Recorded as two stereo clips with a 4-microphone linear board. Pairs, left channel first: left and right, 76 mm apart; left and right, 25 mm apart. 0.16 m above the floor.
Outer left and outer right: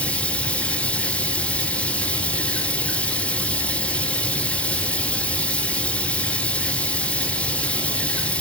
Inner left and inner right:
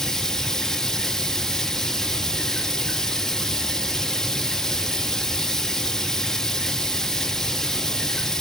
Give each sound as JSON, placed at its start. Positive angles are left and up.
{"t": 0.0, "sound": "running water", "side_deg": 15, "distance_m": 1.0}